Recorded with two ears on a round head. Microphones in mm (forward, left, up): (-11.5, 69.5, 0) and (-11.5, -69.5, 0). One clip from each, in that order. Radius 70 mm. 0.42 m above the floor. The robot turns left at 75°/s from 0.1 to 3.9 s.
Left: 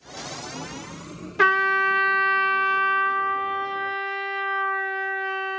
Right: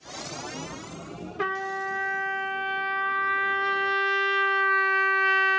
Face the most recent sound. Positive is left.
turn(degrees=-70)